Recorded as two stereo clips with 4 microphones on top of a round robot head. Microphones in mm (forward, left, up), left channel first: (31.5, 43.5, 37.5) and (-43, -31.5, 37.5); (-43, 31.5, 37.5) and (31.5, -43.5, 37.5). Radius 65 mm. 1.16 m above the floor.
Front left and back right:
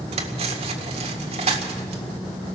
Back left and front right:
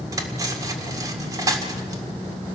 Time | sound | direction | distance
0.1 | cutlery clinking | 100° right | 1.8 m